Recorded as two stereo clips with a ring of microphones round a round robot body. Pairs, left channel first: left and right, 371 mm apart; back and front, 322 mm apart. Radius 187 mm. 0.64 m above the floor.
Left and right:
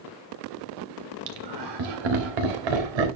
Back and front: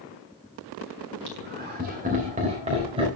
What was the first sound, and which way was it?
Laughter, 60° right.